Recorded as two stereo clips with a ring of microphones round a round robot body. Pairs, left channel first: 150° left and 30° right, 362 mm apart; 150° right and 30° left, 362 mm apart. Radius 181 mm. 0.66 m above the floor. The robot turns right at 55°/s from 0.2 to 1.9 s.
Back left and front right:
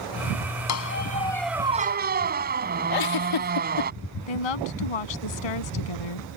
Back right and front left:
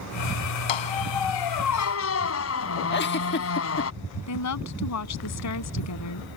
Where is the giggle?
155° left.